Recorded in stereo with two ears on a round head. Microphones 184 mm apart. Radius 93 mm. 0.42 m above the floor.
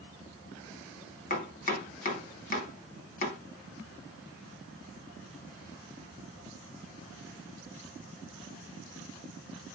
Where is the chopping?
40° left (ahead or behind), 1.2 m.